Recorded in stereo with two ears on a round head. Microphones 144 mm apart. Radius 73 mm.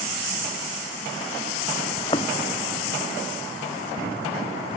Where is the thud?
30° left (ahead or behind).